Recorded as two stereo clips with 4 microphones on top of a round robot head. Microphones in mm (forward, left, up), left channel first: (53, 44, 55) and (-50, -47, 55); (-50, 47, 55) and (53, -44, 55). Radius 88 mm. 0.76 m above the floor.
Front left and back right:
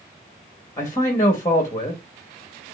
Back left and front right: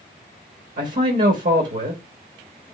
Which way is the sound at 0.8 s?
25° right.